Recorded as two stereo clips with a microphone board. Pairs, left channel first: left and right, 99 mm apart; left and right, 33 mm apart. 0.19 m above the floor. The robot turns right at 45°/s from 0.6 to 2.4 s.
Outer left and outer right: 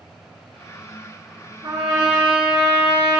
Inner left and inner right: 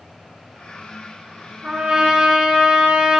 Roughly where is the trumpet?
Behind right.